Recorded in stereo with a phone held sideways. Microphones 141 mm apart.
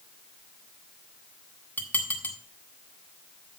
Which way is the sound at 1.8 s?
10° left (ahead or behind).